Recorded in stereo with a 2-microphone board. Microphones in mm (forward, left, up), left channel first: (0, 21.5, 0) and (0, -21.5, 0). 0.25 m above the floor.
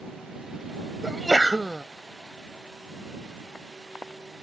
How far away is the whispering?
I don't hear whispering.